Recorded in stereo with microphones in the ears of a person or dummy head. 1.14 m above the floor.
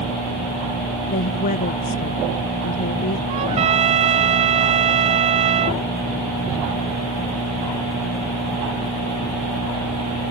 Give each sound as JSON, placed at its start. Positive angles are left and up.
{"t": 1.1, "sound": "a woman speaking", "side_deg": 50}
{"t": 3.3, "sound": "a trumpet", "side_deg": -35}